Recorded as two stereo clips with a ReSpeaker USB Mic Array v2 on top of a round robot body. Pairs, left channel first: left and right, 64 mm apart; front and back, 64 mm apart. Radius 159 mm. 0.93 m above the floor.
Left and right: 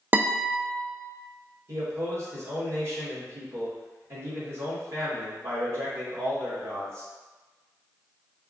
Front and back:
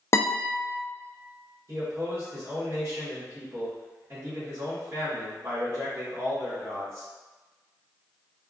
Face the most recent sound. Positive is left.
turn(degrees=-135)